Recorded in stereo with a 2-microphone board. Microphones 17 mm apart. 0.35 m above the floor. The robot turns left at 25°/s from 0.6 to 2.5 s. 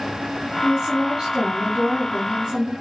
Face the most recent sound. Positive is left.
turn(degrees=-75)